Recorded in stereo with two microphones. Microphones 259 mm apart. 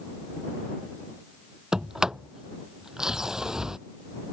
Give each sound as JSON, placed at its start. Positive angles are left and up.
{"t": 1.7, "sound": "a sliding door", "side_deg": 0}